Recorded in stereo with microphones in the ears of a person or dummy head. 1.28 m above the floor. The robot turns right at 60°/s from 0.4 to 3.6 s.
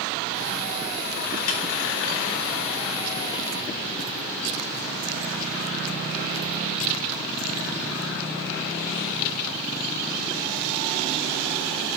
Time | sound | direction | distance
1.5 | a snare drum | 85° left | 1.2 m